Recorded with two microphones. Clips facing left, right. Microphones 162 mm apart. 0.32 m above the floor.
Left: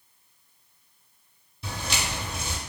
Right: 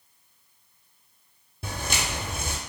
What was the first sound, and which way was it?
Footsteps, 55° right (ahead or behind).